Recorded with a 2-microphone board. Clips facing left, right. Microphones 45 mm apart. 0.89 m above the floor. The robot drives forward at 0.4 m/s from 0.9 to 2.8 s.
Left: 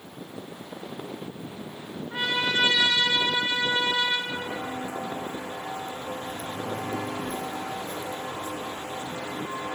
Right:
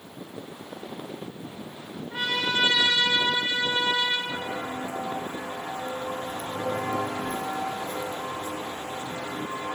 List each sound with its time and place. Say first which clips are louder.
2.1 s a trumpet: left 1 dB; 15° left (ahead or behind), 4 m
4.3 s footsteps: even; 35° right (ahead or behind), 3 m; by 9.8 s 20° right (ahead or behind), 2.5 m